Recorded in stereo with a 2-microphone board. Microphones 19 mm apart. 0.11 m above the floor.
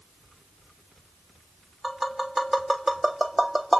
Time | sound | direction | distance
1.8 | tapping | 15° right (ahead or behind) | 1.2 m